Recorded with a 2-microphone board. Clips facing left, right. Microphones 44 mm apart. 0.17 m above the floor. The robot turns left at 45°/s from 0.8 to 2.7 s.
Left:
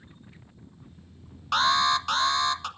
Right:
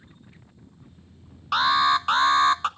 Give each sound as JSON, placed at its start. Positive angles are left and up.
{"t": 1.5, "sound": "an alarm", "azimuth_deg": -5, "distance_m": 0.9}